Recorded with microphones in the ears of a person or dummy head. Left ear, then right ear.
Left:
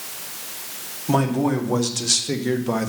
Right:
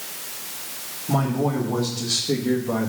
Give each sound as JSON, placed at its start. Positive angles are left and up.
{"t": 1.1, "sound": "a man speaking", "side_deg": 60, "distance_m": 2.0}